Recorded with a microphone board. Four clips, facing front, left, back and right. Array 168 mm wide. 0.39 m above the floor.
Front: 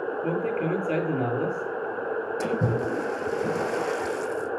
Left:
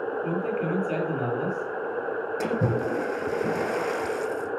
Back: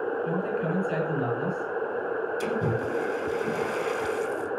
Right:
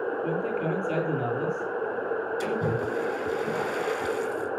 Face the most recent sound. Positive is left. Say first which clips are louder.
# left 5 dB, front 3 dB
turn(degrees=50)